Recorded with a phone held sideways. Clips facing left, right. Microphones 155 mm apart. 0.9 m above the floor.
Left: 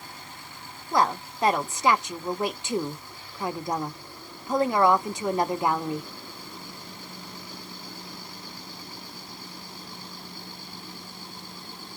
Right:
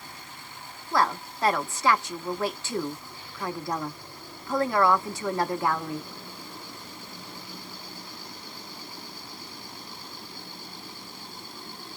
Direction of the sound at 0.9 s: 20° left (ahead or behind).